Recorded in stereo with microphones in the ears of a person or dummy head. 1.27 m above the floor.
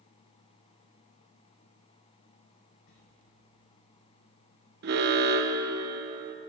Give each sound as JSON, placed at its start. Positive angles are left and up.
{"t": 2.9, "sound": "a sliding door", "side_deg": 70, "distance_m": 5.5}
{"t": 4.8, "sound": "an alarm", "side_deg": -55, "distance_m": 1.0}